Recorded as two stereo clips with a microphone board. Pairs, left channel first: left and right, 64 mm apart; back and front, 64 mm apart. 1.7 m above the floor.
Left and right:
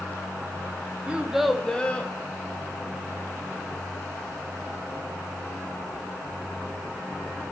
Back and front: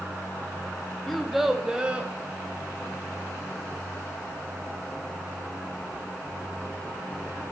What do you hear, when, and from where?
1.1 s a child speaking: 100° right, 0.7 m; by 2.1 s 50° left, 0.8 m